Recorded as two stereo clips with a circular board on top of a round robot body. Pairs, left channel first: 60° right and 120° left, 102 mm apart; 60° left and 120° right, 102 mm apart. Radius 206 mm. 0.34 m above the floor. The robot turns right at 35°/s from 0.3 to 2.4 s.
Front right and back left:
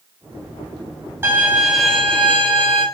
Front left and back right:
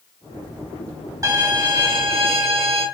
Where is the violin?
175° right, 4.5 m; by 2.9 s 135° right, 4.5 m.